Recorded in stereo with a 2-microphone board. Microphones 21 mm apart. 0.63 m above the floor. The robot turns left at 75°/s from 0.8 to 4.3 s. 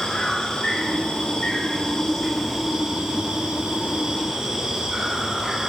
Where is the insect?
120° left, 3.5 m; by 5.7 s 145° right, 3.5 m.